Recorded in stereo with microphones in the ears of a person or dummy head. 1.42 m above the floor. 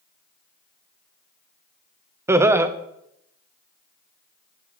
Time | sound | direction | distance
2.3 | laughter | 15° right (ahead or behind) | 0.5 m